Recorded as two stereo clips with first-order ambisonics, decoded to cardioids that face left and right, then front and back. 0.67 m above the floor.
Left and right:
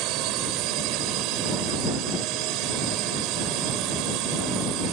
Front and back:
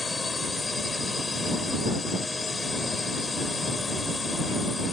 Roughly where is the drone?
Right.